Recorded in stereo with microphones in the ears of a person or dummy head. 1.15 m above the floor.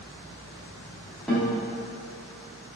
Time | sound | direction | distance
1.3 | a guitar | 5° left (ahead or behind) | 1.1 m